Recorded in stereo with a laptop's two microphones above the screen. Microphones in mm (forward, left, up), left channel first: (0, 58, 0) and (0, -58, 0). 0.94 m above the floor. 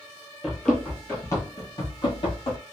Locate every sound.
0.4 s running footsteps: centre (ahead or behind), 1.1 m; by 2.6 s 55° left (ahead or behind), 1.5 m